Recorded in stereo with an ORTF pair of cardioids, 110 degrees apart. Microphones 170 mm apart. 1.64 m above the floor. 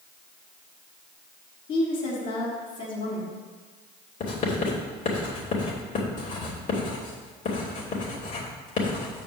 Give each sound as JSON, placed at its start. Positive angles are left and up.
{"t": 1.7, "sound": "a woman speaking", "azimuth_deg": 60, "distance_m": 3.5}
{"t": 4.2, "sound": "writing", "azimuth_deg": 50, "distance_m": 3.0}